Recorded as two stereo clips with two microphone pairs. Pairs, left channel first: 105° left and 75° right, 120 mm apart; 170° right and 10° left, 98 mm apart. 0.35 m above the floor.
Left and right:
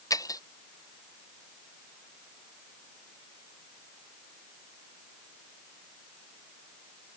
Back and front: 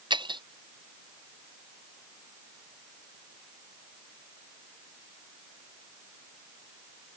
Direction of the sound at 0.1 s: 45° left.